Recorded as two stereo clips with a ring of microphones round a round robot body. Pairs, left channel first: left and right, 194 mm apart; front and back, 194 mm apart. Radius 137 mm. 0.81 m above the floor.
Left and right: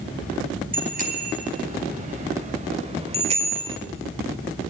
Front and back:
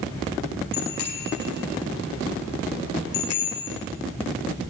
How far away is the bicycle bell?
About 4.5 m.